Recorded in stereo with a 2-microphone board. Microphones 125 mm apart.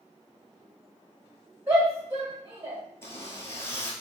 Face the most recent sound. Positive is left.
turn(degrees=20)  # may be behind; listen again after turning